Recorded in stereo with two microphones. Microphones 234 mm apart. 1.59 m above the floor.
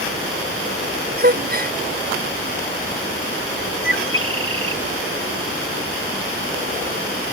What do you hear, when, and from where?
1.2 s a gasp: 40° right (ahead or behind)
3.8 s a bird: 60° right (ahead or behind)